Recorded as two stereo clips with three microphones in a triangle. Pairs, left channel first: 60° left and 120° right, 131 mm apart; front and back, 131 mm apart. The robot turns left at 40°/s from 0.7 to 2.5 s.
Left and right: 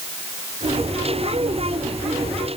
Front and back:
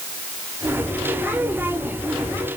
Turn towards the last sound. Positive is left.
No sound to turn to.